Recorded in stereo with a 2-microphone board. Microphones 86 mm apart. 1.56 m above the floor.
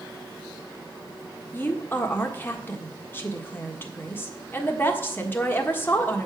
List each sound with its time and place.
1.5 s a woman speaking: 25° left (ahead or behind), 1.4 m